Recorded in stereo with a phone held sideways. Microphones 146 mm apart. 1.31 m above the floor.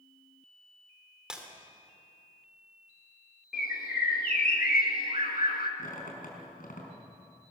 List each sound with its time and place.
1.3 s breaking glass: 5° right (ahead or behind), 3 m
3.5 s a bird: 80° left, 2.0 m
5.8 s a squeak: 65° left (ahead or behind), 5 m